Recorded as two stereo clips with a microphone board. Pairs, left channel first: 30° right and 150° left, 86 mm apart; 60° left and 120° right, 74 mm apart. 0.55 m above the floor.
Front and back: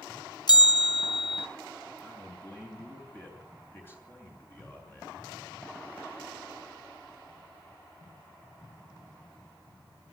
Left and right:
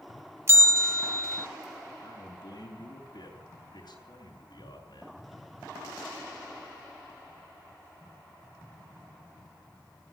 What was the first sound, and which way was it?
A bell, 65° right.